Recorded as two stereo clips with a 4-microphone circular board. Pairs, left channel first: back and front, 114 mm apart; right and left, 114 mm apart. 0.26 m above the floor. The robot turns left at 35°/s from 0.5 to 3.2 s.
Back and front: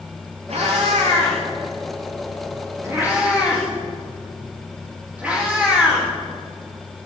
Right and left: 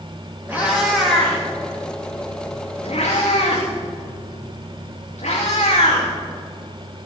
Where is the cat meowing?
15° left, 6 m; by 6.1 s 80° right, 6 m.